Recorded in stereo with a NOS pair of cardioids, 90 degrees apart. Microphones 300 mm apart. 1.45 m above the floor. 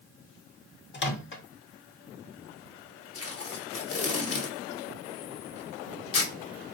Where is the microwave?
40° left, 0.8 m.